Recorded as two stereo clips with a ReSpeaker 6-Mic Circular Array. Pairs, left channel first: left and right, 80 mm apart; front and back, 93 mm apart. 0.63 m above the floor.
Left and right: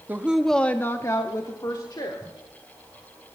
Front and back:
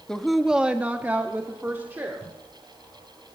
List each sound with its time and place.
0.1 s a woman speaking: 75° right, 0.7 m; by 2.3 s 115° left, 1.7 m